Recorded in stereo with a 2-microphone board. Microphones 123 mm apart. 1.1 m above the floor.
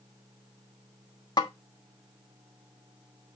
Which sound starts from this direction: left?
A snare drum, at 1.4 s.